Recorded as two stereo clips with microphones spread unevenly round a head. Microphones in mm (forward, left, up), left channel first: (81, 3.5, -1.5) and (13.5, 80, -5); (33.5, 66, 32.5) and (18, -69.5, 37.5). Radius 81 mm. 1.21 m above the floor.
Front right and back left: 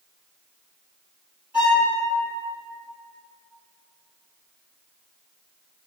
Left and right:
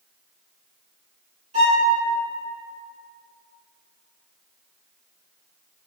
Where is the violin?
145° right, 1.0 m.